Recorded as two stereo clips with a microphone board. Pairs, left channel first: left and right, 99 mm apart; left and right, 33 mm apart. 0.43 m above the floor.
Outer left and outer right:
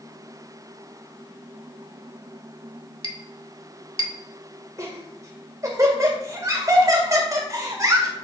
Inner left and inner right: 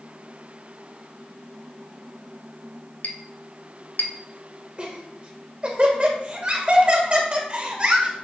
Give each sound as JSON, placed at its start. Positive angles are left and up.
{"t": 3.0, "sound": "a clink", "side_deg": 65, "distance_m": 0.9}
{"t": 4.8, "sound": "laughter", "side_deg": -35, "distance_m": 1.7}